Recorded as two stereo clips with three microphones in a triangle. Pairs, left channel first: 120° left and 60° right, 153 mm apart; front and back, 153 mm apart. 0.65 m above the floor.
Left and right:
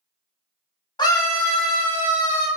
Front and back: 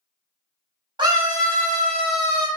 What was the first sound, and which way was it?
A scream, 155° left.